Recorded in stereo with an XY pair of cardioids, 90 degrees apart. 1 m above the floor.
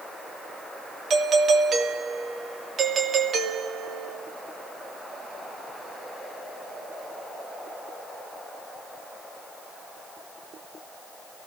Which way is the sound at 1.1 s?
65° right.